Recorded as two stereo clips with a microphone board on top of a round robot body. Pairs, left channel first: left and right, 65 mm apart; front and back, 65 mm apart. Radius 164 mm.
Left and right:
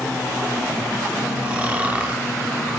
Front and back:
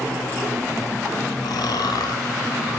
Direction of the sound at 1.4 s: 15° right.